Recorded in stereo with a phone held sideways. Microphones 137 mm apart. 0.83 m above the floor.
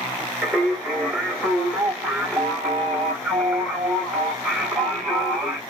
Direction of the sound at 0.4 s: 5° right (ahead or behind).